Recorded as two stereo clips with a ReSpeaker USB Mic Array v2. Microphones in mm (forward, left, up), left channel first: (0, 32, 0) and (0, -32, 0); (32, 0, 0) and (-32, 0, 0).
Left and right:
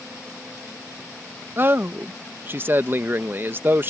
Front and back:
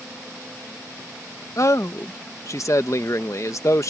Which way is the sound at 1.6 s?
35° right.